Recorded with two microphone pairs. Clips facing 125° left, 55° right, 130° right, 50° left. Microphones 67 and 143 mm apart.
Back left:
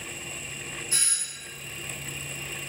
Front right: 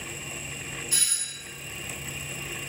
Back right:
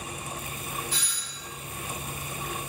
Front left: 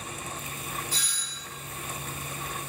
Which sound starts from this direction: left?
A doorbell, at 0.9 s.